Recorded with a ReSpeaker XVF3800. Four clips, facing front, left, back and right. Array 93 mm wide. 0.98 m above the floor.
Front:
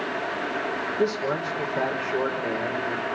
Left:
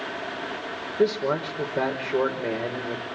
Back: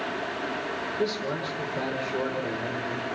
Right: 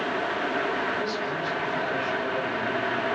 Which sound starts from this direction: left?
A man speaking, at 1.0 s.